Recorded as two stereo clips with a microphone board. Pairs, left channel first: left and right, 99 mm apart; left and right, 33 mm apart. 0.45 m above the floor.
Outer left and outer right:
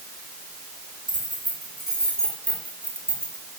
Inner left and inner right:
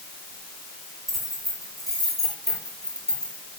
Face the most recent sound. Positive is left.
turn(degrees=25)  # may be behind; listen again after turning